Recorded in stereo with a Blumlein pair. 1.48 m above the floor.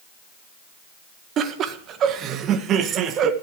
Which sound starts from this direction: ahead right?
Laughter, at 1.4 s.